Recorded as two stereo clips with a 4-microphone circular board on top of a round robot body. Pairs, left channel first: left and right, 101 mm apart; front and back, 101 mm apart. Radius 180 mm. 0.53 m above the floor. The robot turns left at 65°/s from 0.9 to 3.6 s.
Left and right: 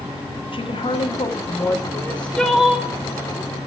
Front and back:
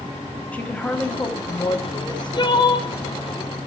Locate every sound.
0.5 s a woman speaking: 75° left, 1.6 m; by 1.8 s 15° left, 1.6 m
1.9 s crying: 35° left, 1.5 m; by 2.9 s 30° right, 1.5 m